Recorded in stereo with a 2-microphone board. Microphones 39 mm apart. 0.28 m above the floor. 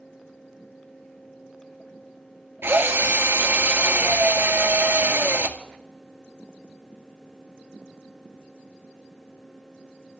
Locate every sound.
2.6 s a drill: 80° right, 2 m